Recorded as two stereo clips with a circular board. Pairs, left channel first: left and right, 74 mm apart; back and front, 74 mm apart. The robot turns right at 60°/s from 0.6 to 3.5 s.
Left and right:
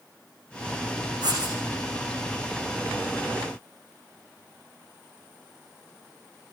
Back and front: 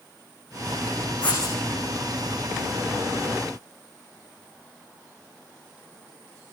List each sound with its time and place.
1.2 s writing: 110° right, 8 m; by 1.6 s 90° right, 8 m